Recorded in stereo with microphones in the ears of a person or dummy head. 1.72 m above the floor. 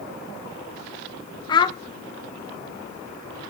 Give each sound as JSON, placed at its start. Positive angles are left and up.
{"t": 1.5, "sound": "a child speaking", "side_deg": 20, "distance_m": 0.8}